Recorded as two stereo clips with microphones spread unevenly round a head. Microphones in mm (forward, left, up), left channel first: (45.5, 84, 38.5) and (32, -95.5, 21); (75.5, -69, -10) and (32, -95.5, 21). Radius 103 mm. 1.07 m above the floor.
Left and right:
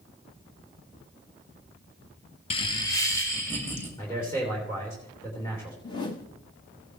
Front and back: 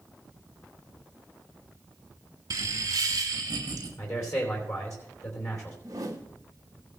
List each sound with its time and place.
2.5 s laughter: 150° left, 0.6 m; by 3.9 s 165° left, 2.5 m
4.0 s a man speaking: 10° left, 3 m
5.8 s a whoosh: 155° left, 1.0 m